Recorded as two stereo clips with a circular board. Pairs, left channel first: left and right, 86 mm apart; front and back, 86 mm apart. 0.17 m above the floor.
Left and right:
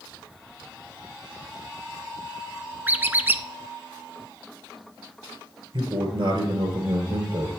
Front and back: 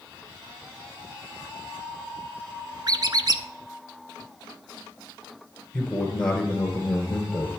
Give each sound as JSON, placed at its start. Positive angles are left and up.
{"t": 2.9, "sound": "a squeak", "azimuth_deg": -155, "distance_m": 0.6}
{"t": 5.7, "sound": "a man speaking", "azimuth_deg": -80, "distance_m": 2.5}